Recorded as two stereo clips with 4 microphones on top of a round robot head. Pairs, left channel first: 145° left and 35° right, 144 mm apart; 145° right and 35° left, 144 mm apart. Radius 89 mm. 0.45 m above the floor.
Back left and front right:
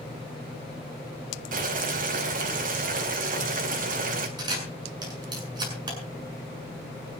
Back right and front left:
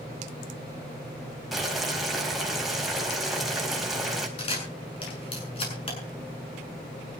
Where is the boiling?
55° right, 3.5 m.